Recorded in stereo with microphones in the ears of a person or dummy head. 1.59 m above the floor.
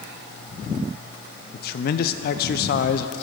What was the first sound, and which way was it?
A man speaking, 55° left (ahead or behind).